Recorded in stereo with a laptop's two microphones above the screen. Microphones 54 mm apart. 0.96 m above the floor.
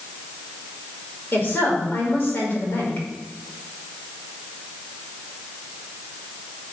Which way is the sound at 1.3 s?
40° left (ahead or behind).